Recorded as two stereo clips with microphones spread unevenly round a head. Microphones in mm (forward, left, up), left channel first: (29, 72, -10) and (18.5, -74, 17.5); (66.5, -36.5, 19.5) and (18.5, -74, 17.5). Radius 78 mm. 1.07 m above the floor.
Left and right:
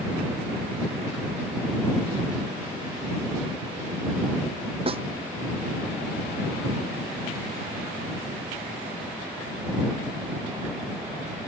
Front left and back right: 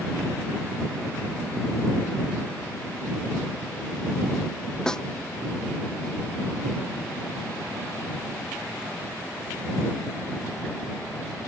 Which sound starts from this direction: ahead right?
A snare drum, at 4.9 s.